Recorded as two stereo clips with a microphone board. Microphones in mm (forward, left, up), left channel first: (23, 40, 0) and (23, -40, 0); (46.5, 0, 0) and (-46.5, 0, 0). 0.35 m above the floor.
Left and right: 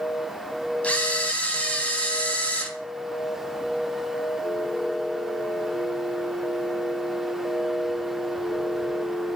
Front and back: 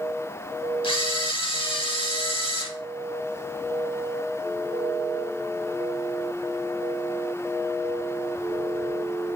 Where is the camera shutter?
20° left, 0.6 m.